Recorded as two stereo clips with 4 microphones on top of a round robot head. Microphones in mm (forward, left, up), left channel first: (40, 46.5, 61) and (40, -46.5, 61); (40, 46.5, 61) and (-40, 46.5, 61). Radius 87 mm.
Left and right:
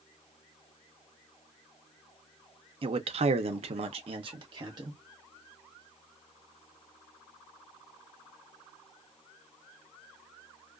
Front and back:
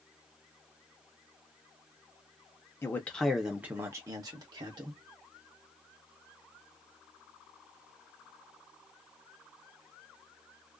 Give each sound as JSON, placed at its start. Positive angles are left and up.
{"t": 2.8, "sound": "a man speaking", "azimuth_deg": -65, "distance_m": 0.7}